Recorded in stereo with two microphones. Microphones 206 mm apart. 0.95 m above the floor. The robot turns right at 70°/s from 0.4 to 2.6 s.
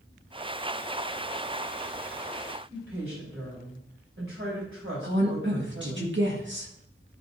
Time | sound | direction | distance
2.7 | a woman speaking | 70° right (ahead or behind) | 4.5 m
5.0 | a woman speaking | 60° right (ahead or behind) | 1.7 m